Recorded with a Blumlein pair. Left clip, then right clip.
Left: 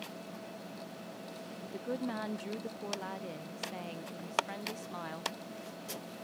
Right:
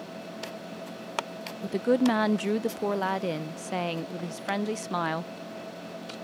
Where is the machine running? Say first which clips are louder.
Right 7 dB; 70° right.